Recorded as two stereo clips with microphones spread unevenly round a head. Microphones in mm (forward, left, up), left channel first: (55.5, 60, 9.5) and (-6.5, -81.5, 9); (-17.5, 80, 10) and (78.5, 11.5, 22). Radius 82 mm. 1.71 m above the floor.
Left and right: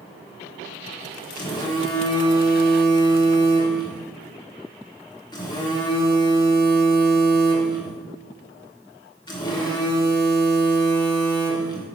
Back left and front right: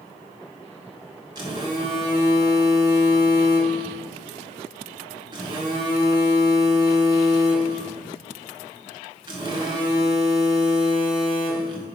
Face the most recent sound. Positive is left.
turn(degrees=10)